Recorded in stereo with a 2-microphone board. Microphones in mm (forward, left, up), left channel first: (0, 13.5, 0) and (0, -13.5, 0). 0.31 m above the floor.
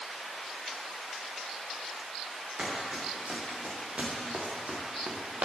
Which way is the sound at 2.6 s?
45° right (ahead or behind).